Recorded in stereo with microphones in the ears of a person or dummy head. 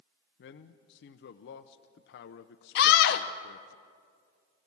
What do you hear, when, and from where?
0.4 s a man speaking: 65° left (ahead or behind), 0.7 m
2.8 s a scream: 65° left (ahead or behind), 0.6 m